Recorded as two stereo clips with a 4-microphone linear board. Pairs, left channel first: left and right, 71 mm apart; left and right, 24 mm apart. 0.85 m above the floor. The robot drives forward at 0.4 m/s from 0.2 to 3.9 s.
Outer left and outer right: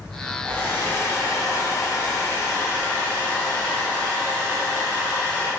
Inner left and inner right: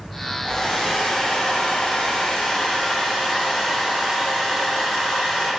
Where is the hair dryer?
25° left (ahead or behind), 0.7 m; by 5.5 s 20° left (ahead or behind), 1.0 m.